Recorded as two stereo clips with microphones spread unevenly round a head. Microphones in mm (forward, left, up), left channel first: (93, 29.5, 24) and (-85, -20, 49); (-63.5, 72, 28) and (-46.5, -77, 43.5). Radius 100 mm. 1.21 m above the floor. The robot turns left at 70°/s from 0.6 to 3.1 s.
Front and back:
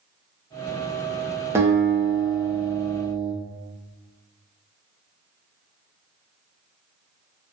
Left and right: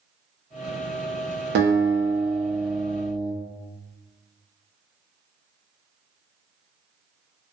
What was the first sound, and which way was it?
A guitar, 90° right.